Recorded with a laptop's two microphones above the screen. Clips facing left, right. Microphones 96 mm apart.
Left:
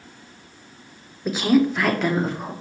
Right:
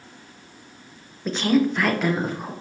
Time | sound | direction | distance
1.2 | a woman speaking | 10° left (ahead or behind) | 0.7 m